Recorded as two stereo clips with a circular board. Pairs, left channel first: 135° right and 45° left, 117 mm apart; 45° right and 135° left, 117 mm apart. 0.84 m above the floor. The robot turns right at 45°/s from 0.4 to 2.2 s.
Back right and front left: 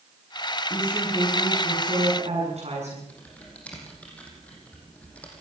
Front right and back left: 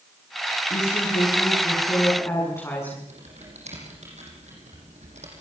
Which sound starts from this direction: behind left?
Typing on a keyboard, at 3.1 s.